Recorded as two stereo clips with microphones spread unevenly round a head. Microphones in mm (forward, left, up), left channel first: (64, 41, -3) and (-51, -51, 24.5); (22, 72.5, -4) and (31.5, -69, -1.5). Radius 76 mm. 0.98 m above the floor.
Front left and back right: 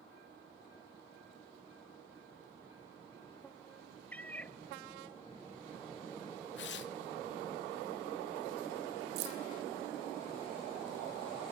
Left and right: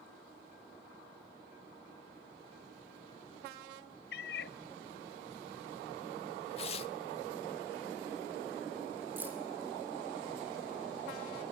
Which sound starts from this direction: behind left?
A cat meowing, at 4.1 s.